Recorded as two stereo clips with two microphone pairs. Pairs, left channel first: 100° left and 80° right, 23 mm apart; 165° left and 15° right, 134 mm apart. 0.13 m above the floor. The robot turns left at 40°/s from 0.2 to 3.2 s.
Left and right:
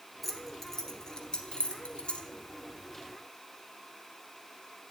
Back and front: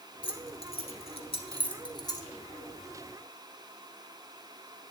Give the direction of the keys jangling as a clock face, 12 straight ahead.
6 o'clock.